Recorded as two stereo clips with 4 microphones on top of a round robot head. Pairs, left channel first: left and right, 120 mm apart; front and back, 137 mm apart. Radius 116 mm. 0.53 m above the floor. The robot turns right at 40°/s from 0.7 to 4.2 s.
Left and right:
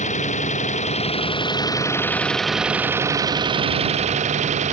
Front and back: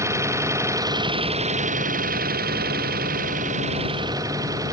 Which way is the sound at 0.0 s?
110° left.